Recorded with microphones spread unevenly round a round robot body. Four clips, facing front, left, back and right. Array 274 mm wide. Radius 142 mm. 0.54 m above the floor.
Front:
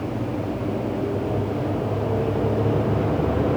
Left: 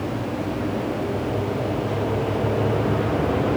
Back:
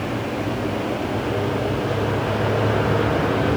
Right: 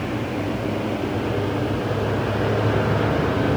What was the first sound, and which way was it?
Only background noise.